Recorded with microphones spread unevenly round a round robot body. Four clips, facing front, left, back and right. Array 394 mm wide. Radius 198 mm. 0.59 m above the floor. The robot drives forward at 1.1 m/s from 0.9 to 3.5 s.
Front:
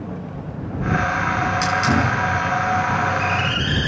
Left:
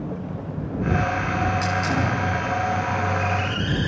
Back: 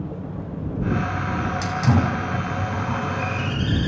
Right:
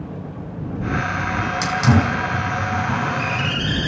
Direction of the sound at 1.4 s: 110° right.